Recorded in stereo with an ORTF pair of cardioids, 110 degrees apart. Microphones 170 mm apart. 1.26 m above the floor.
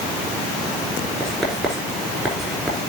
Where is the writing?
Straight ahead, 4.5 m.